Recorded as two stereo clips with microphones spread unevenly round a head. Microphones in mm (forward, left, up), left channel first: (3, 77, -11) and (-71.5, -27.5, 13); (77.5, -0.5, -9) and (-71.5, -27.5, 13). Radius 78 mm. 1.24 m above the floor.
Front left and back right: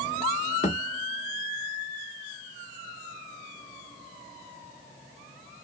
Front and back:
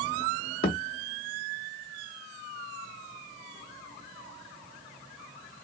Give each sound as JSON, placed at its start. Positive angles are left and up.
{"t": 0.6, "sound": "a thud", "azimuth_deg": 25, "distance_m": 1.0}